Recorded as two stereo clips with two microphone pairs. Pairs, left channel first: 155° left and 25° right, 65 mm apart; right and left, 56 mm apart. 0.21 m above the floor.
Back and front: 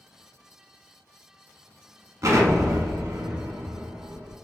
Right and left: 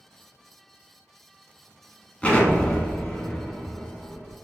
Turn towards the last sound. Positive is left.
turn(degrees=-25)